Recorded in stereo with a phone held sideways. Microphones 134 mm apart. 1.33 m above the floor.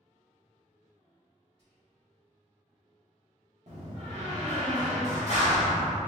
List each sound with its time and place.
1.6 s whispering: 45° right (ahead or behind), 1.8 m
3.7 s a door slam: 60° right (ahead or behind), 0.9 m